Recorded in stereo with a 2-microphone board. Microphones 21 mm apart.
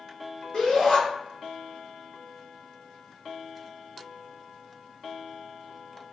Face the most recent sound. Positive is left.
turn(degrees=40)  # may be behind; listen again after turning